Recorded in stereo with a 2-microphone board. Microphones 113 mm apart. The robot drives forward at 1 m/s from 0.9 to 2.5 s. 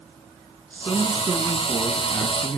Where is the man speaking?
15° left (ahead or behind), 3 m; by 2.6 s 25° left (ahead or behind), 1.7 m.